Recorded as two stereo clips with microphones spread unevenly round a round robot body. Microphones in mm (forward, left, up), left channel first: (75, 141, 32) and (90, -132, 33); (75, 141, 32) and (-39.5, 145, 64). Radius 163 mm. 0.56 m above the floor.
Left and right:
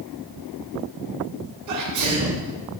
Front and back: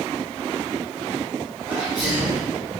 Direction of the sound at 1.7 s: 85° right.